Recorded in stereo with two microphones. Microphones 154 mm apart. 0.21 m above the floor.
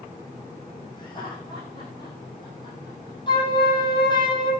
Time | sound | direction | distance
1.0 | laughter | 30° left (ahead or behind) | 8 m
3.3 | a flute | 30° left (ahead or behind) | 7 m